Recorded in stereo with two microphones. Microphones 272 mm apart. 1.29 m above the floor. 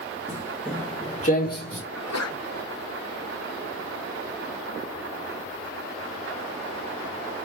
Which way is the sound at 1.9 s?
65° left (ahead or behind).